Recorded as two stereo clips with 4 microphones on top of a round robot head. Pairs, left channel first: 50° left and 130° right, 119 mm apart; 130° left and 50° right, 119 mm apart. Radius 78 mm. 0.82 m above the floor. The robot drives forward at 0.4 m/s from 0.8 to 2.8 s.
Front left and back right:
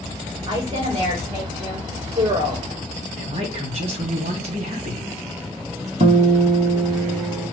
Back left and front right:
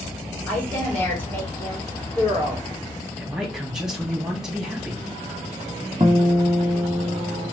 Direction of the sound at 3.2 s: 135° right.